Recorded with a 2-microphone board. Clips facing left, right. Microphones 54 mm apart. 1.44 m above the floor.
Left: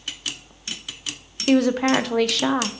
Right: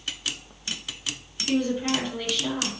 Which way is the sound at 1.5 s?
75° left (ahead or behind).